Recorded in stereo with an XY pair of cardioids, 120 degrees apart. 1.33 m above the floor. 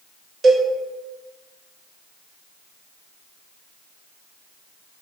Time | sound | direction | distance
0.4 | a cowbell | 45° right | 0.7 m